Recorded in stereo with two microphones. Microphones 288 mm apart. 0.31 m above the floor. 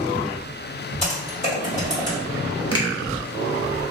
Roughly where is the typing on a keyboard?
Left.